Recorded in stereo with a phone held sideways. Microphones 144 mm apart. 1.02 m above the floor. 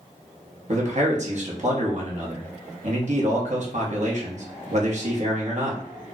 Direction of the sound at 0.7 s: 55° right (ahead or behind).